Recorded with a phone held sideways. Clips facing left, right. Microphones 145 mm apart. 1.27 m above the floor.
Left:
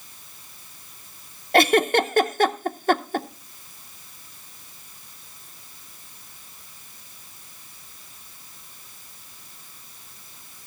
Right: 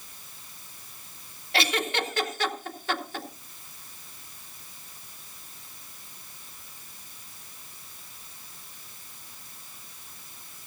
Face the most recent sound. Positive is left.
turn(degrees=50)  # may be behind; listen again after turning